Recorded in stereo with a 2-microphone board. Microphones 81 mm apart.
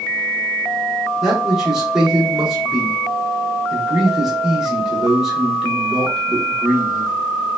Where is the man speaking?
5° right (ahead or behind), 1.0 m.